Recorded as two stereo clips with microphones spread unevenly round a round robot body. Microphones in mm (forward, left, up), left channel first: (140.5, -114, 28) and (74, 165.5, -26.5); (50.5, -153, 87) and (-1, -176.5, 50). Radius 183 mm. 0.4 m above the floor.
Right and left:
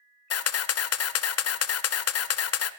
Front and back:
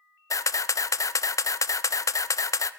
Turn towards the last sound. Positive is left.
turn(degrees=-30)